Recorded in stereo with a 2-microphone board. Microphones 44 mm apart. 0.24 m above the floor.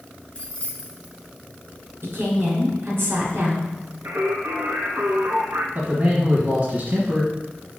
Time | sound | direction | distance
0.3 | keys jangling | 25° left (ahead or behind) | 1.8 m
2.0 | a woman speaking | 60° right (ahead or behind) | 3 m
4.0 | singing | 65° right (ahead or behind) | 1.1 m
5.8 | a man speaking | 40° right (ahead or behind) | 1.4 m